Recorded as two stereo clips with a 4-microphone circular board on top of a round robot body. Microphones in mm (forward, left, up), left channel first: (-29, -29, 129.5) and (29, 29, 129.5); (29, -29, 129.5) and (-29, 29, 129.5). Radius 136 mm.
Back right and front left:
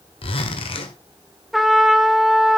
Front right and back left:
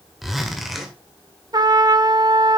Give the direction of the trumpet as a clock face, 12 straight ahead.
8 o'clock.